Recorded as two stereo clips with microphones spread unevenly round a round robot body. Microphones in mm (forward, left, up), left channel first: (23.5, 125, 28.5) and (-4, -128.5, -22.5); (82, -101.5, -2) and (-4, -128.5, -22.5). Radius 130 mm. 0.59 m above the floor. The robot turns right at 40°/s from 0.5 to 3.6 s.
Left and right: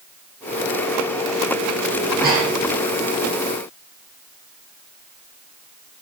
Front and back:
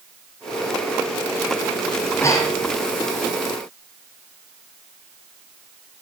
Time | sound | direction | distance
2.0 | breathing | 50° right | 7.5 m